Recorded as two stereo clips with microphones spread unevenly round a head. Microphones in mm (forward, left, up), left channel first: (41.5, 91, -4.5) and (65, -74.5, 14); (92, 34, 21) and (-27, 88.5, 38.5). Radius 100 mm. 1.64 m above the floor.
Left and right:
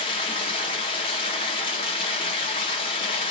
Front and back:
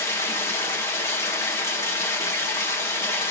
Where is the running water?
45° left, 1.1 m.